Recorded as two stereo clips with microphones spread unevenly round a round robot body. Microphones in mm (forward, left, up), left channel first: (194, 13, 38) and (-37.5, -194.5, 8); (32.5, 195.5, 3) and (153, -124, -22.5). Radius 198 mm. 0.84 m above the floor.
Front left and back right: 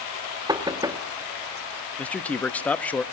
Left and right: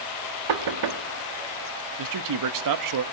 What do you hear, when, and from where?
0.5 s knocking: 60° right, 1.4 m
2.0 s a man speaking: 45° right, 0.9 m